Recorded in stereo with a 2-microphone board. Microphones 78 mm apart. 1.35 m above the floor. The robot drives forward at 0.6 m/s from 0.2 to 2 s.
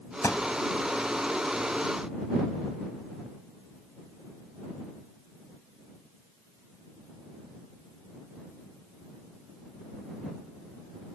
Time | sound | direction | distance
0.2 | a thud | 40° left (ahead or behind) | ?